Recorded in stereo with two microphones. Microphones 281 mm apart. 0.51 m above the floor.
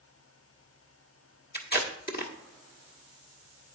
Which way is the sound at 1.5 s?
35° left (ahead or behind).